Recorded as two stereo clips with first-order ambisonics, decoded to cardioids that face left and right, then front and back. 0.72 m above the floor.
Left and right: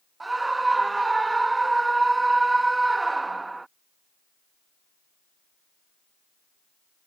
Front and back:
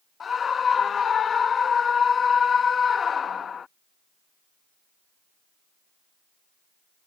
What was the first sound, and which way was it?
A scream, 25° right.